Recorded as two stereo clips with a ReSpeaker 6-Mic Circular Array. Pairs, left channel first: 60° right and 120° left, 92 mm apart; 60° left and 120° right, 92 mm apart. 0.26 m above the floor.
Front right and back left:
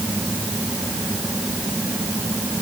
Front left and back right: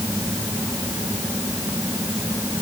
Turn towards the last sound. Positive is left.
No sound to turn to.